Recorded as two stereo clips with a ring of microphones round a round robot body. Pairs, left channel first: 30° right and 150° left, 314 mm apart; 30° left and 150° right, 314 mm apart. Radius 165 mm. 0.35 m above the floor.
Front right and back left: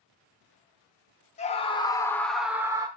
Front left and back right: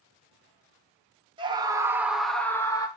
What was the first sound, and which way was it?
A scream, 85° right.